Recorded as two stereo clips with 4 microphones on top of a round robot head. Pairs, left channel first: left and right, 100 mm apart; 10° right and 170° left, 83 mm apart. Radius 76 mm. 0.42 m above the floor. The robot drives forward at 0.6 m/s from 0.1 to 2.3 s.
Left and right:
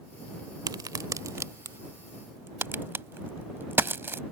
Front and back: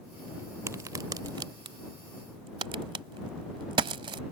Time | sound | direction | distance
0.7 | a crack | 135° right | ?